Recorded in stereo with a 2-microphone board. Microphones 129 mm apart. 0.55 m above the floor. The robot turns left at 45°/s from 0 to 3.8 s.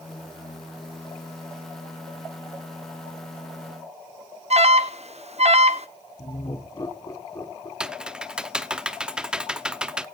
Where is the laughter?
30° left (ahead or behind), 1.3 m.